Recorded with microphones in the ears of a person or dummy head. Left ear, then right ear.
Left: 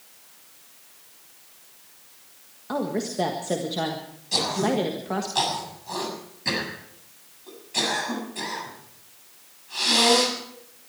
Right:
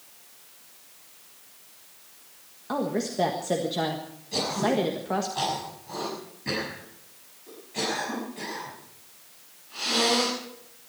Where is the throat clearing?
50° left (ahead or behind), 7.5 m.